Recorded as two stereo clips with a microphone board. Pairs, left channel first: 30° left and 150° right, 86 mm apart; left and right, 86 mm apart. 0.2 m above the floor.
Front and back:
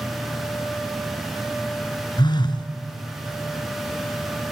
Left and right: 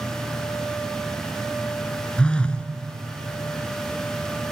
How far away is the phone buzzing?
About 1.3 m.